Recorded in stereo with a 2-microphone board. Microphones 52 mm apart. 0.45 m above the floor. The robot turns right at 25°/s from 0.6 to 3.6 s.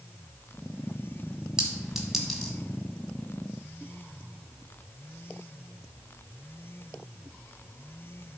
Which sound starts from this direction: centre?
A clink, at 1.6 s.